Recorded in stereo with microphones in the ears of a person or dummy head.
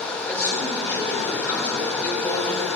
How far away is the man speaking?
About 4 m.